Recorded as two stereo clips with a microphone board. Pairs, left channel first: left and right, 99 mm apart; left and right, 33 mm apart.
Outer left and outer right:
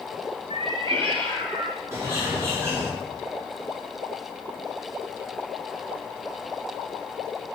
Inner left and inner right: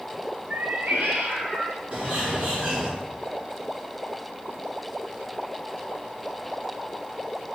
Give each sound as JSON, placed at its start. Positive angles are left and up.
{"t": 0.5, "sound": "a cat meowing", "side_deg": -75, "distance_m": 0.5}
{"t": 1.9, "sound": "a bird", "side_deg": -30, "distance_m": 1.6}